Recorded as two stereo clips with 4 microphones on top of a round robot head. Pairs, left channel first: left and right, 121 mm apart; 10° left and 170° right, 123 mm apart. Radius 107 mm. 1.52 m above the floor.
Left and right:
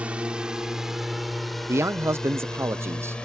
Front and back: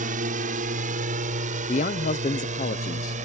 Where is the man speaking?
20° right.